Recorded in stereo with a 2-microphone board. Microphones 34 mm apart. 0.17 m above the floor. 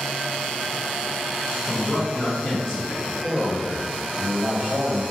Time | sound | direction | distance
1.6 | a man speaking | 30° left (ahead or behind) | 2.0 m